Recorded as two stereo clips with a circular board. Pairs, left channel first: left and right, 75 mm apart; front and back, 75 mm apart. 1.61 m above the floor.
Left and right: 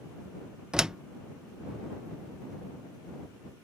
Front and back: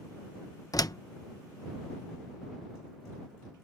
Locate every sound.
0.7 s a door slam: 15° right